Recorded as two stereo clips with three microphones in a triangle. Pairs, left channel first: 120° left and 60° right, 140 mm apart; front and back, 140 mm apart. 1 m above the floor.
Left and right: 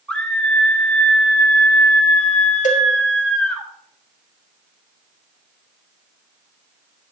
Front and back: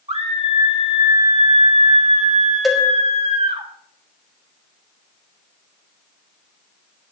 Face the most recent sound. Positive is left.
turn(degrees=90)